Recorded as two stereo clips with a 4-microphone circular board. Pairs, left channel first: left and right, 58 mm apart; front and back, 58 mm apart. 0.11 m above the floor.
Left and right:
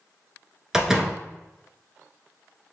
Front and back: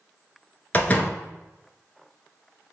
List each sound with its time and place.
0.7 s a door slam: 15° right, 0.9 m